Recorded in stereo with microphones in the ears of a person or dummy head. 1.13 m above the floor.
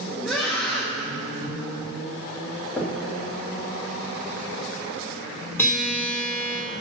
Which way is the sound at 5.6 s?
15° left (ahead or behind).